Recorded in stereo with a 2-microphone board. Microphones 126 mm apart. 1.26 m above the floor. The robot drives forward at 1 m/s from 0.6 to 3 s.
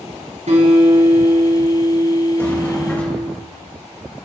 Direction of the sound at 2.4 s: 15° left (ahead or behind).